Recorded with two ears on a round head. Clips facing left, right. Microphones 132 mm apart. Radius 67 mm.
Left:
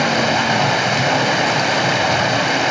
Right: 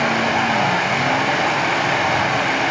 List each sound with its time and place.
0.0 s running water: 40° left (ahead or behind), 3 m